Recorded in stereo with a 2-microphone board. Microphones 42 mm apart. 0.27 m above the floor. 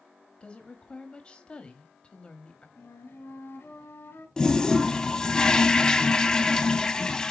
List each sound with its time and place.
0.4 s a woman speaking: 25° left (ahead or behind), 1.0 m
2.8 s a flute: 65° left (ahead or behind), 2 m
4.4 s a toilet flushing: 15° left (ahead or behind), 0.7 m